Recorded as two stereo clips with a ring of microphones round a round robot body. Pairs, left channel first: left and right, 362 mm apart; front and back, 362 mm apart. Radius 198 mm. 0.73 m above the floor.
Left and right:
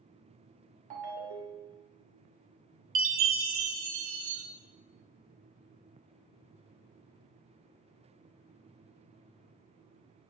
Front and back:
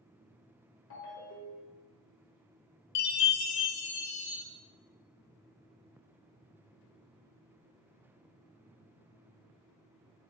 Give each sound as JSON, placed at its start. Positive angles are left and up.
{"t": 0.9, "sound": "a ringtone", "azimuth_deg": -60, "distance_m": 1.4}
{"t": 3.0, "sound": "a chime", "azimuth_deg": -35, "distance_m": 1.1}